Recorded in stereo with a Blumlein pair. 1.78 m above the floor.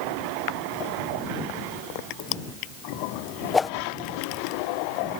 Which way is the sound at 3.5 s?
15° left.